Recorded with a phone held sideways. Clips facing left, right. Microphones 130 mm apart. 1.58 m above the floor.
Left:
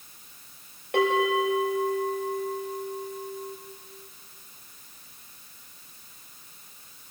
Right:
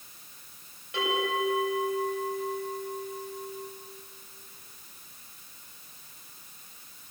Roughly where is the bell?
Left.